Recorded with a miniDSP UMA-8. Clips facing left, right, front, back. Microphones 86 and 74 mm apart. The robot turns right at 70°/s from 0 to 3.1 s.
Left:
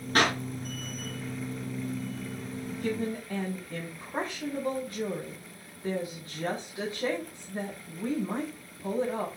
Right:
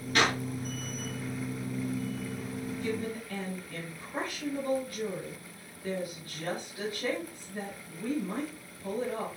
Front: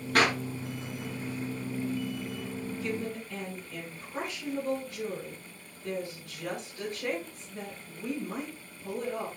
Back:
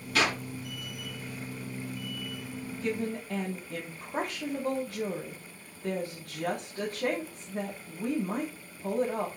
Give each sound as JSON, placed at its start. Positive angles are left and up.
{"t": 0.1, "sound": "a clap", "azimuth_deg": 40, "distance_m": 4.0}
{"t": 2.7, "sound": "a woman speaking", "azimuth_deg": 125, "distance_m": 3.0}